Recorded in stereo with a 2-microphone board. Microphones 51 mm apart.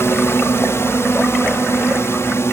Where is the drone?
55° left (ahead or behind).